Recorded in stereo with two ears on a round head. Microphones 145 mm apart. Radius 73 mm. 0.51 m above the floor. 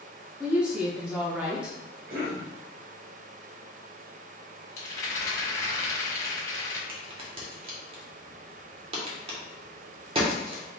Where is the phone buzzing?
No phone buzzing in this recording.